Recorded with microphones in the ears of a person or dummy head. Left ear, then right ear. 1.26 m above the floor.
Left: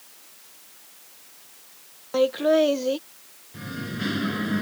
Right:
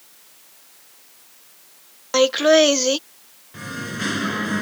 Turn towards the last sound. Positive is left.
turn(degrees=-30)  # may be behind; listen again after turning